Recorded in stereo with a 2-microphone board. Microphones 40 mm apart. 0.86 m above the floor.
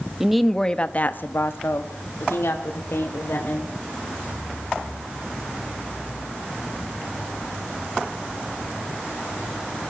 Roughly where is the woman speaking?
Centre.